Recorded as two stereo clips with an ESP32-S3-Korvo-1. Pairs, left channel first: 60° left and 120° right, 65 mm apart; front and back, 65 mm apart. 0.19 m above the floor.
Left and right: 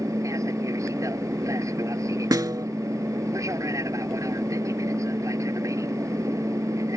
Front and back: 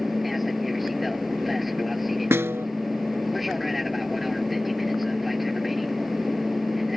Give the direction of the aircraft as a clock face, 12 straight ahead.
3 o'clock.